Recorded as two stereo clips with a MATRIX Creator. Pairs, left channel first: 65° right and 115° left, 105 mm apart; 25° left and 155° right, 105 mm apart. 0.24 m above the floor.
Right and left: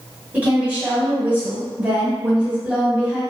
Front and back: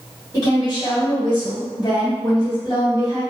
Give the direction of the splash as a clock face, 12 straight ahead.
I don't hear a splash.